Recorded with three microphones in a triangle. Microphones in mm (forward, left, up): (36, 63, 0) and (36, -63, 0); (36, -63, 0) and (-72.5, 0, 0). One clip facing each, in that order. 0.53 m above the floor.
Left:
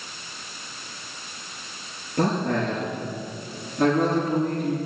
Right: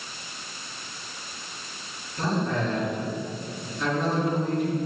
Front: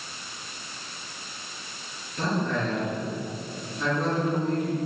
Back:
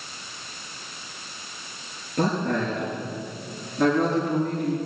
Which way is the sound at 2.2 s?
115° left.